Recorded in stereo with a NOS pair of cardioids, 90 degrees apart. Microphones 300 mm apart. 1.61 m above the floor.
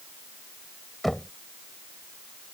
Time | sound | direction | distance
1.0 | knocking | straight ahead | ?